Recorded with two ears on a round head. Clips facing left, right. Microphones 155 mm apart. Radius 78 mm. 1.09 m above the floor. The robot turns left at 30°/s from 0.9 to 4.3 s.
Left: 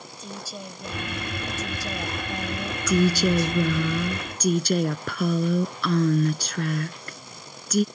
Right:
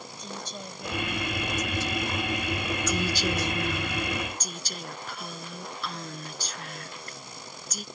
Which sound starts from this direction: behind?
A woman speaking, at 0.2 s.